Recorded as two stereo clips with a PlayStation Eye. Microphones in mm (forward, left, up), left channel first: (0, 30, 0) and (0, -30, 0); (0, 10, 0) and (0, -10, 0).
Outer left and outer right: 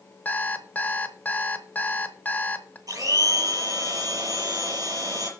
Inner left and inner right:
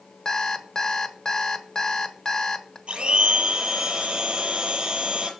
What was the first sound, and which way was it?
An alarm clock, 30° left (ahead or behind).